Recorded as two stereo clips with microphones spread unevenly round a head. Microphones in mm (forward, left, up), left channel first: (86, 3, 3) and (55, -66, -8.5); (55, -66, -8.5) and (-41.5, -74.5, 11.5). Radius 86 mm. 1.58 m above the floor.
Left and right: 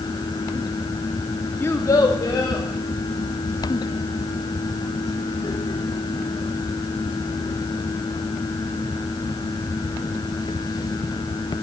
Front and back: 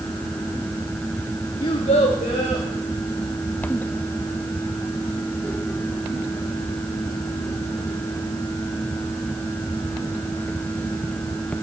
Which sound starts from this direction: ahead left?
A child speaking, at 1.6 s.